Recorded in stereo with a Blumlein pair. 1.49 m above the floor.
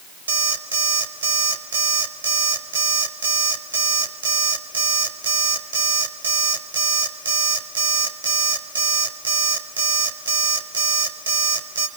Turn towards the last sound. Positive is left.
turn(degrees=-65)